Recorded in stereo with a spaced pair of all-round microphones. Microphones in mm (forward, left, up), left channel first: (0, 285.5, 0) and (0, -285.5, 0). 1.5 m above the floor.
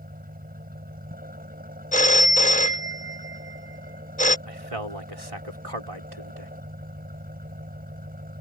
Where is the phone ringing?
15° left (ahead or behind).